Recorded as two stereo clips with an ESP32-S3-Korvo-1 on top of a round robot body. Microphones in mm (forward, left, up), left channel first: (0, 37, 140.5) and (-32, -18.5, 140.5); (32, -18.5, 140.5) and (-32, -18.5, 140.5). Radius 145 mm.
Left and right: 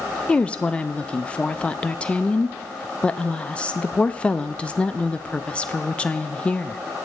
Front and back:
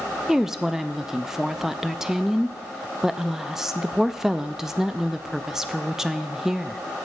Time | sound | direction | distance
0.3 | a woman speaking | 105° left | 0.6 m